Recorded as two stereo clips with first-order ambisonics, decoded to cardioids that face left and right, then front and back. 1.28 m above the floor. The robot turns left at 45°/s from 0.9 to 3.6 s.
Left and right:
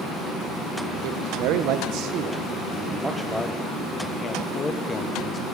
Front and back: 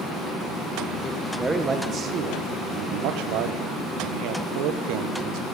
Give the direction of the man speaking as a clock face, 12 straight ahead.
3 o'clock.